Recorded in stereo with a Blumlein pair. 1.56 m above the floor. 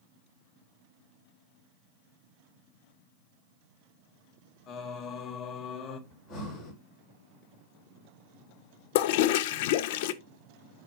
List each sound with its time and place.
4.7 s singing: 30° left, 1.1 m
6.1 s breathing: 35° left, 4.5 m
8.9 s a toilet flushing: 50° left, 0.6 m